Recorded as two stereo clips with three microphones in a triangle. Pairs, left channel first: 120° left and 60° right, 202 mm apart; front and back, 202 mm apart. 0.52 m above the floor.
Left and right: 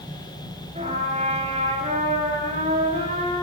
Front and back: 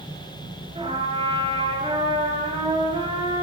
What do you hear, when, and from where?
0.8 s a trumpet: 115° right, 10 m